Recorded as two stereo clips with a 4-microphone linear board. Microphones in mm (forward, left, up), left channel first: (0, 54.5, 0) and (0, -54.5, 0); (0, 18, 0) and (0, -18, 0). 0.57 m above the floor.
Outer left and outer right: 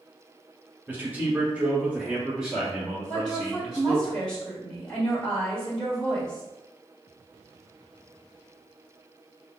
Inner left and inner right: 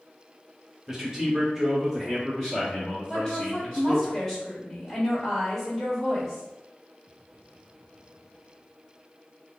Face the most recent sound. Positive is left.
turn(degrees=10)  # may be behind; listen again after turning